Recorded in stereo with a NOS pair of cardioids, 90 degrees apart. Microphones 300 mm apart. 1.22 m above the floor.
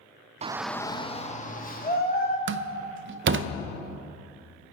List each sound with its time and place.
0.4 s a shout: 25° right, 0.6 m; by 2.4 s 30° left, 3 m
2.5 s a door slam: 45° right, 0.6 m